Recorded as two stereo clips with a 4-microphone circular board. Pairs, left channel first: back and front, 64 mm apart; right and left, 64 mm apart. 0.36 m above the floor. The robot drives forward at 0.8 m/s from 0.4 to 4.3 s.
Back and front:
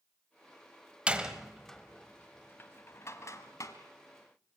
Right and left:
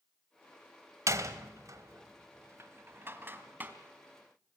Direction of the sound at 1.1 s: 65° left.